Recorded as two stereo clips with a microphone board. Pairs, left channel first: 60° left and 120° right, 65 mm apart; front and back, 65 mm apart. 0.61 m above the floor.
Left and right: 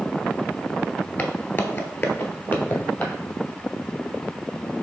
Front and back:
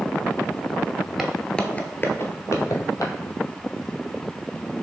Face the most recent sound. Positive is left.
turn(degrees=0)